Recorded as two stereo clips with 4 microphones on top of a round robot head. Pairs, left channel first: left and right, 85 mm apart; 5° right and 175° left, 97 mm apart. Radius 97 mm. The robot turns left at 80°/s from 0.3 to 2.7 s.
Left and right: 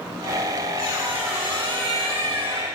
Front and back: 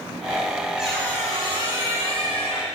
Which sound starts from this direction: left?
A squeak, at 0.8 s.